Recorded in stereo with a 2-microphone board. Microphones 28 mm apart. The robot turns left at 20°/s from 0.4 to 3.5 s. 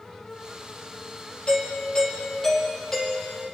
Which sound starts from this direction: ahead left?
A doorbell, at 1.5 s.